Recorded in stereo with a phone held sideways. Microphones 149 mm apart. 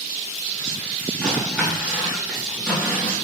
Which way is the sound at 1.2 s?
5° left (ahead or behind).